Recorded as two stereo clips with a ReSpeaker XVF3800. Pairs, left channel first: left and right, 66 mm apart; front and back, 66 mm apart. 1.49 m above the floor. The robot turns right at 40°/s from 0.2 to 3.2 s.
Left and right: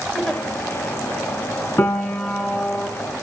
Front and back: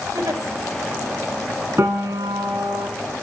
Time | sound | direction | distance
0.1 | a giggle | 170° left | 3.5 m
1.8 | a piano | 135° left | 3 m